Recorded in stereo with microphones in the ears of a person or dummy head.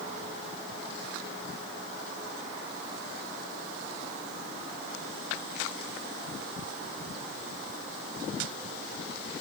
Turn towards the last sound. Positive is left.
No sound to turn to.